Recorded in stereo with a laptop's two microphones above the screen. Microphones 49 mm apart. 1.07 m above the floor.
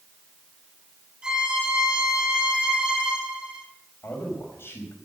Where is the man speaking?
55° left (ahead or behind), 5.5 m.